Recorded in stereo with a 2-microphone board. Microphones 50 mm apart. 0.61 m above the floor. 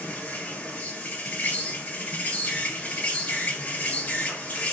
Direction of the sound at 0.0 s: 35° left (ahead or behind).